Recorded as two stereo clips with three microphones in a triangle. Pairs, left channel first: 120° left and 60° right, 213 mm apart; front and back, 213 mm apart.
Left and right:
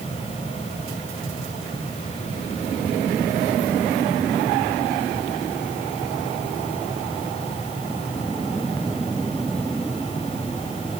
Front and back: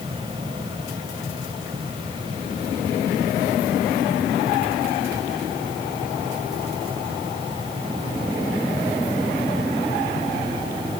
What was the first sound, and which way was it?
Only background noise.